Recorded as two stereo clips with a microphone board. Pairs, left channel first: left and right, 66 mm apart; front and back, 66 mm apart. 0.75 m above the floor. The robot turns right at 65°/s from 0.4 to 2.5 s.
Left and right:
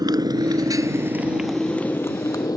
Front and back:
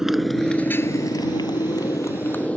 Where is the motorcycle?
95° right; by 2.6 s 70° left.